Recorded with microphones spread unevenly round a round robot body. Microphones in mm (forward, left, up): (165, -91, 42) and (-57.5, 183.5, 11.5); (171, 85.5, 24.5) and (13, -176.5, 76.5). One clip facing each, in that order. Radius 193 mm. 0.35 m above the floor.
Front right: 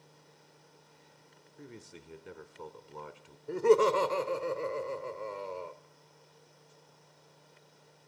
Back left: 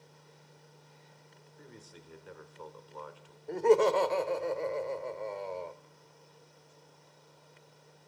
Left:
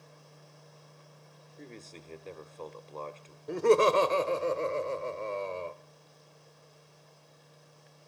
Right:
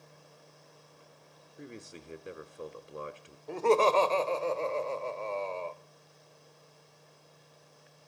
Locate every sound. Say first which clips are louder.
1.6 s a man speaking: front right 4 dB, right 2 dB; 40° right, 1.0 m
3.5 s laughter: even, left 2 dB; 25° left, 0.9 m